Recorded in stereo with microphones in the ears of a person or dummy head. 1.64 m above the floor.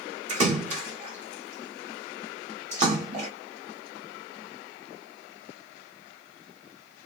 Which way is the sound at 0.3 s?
40° right (ahead or behind).